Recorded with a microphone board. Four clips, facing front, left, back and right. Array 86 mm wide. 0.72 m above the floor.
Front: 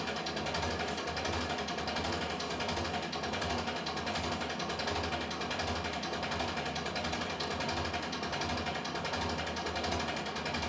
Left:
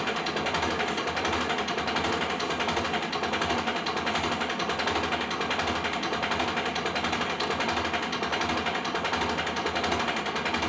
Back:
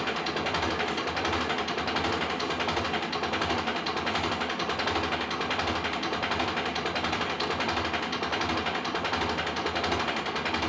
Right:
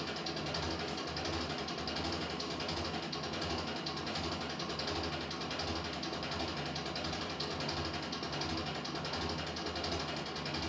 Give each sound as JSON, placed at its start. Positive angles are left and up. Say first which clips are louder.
{"t": 0.0, "sound": "an engine running", "louder": "left 11 dB, back 7 dB", "azimuth_deg": 130, "distance_m": 0.7}